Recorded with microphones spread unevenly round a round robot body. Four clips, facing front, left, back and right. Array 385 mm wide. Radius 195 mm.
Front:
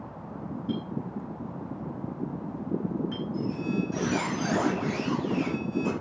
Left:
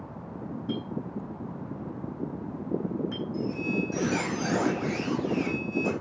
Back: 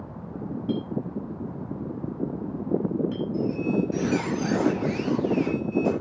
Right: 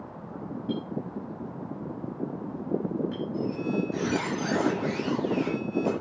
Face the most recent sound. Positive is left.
turn(degrees=125)